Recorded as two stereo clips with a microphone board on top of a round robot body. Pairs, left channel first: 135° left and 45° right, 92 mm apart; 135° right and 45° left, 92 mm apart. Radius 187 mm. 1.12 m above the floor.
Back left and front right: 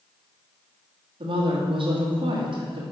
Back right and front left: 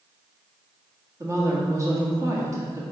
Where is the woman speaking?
15° right, 2 m.